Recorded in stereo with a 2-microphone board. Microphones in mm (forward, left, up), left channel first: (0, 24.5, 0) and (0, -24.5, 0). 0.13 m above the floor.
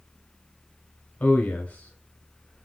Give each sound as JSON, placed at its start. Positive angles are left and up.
{"t": 1.2, "sound": "a man speaking", "side_deg": 30, "distance_m": 1.5}